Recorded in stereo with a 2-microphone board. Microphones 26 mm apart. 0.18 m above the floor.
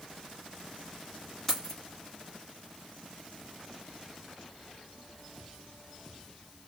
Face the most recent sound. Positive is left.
turn(degrees=10)  # may be behind; listen again after turning